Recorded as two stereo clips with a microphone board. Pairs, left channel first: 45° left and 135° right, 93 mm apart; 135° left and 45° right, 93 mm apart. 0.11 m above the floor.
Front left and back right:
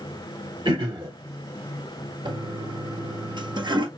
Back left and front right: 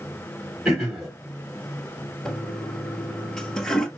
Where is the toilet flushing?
140° right, 0.8 m.